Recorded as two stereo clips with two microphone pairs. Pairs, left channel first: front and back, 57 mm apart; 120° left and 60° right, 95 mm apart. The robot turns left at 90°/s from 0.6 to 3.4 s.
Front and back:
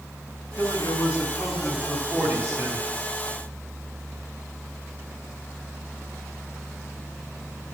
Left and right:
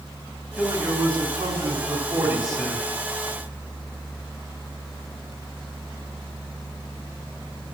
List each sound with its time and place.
0.6 s a man speaking: 20° left, 3 m; by 2.9 s 175° left, 3 m